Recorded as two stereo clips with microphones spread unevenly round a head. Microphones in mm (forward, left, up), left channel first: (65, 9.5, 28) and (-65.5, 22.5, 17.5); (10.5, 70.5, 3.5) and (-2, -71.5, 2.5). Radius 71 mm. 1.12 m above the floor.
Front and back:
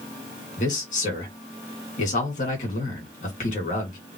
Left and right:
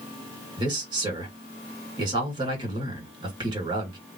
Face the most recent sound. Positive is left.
turn(degrees=-35)